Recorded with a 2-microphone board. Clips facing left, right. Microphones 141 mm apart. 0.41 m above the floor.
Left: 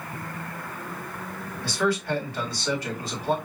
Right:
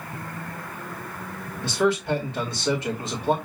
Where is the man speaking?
25° right (ahead or behind), 1.6 m.